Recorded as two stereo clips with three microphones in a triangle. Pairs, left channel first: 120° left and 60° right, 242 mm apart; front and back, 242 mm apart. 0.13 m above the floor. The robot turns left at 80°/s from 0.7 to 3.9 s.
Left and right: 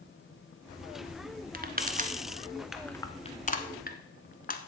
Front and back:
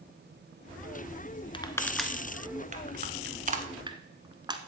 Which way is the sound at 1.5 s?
55° right.